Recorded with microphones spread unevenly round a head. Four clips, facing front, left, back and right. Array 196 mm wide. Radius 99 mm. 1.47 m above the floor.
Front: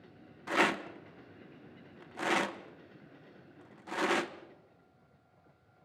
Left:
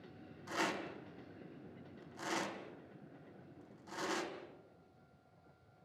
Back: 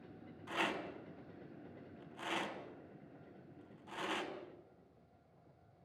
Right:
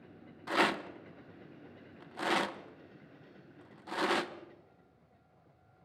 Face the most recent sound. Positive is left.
turn(degrees=-35)